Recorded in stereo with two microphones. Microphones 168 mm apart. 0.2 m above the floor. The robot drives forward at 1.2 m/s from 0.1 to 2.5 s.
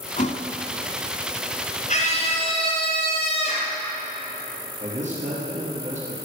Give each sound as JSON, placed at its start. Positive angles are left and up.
{"t": 0.2, "sound": "a thud", "side_deg": 45, "distance_m": 0.9}
{"t": 1.9, "sound": "a scream", "side_deg": 50, "distance_m": 2.0}
{"t": 4.8, "sound": "a man speaking", "side_deg": -45, "distance_m": 4.5}